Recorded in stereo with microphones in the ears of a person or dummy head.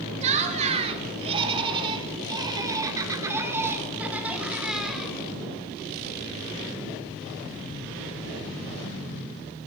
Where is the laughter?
40° right (ahead or behind), 4 m; by 5.2 s centre (ahead or behind), 4.5 m.